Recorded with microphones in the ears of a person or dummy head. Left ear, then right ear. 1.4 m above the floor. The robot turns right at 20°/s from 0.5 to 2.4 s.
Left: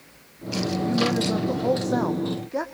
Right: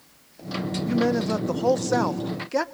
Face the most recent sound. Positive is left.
turn(degrees=-120)